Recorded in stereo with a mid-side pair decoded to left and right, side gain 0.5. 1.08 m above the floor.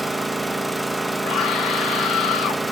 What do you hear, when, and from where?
0.0 s an engine running: 5° right, 0.8 m
1.2 s a scream: 55° left, 2 m